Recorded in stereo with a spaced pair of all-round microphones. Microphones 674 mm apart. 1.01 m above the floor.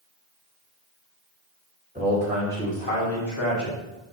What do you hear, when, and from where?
1.9 s a man speaking: 10° right (ahead or behind), 2.5 m; by 3.8 s 40° left (ahead or behind), 2.5 m